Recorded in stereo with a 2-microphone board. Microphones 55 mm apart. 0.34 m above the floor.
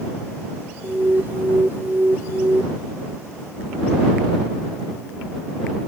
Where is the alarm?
40° right (ahead or behind).